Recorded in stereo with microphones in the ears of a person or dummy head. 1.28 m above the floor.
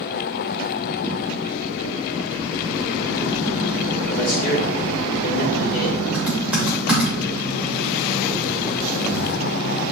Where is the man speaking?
65° left (ahead or behind), 3 m; by 6.0 s 50° left (ahead or behind), 3.5 m.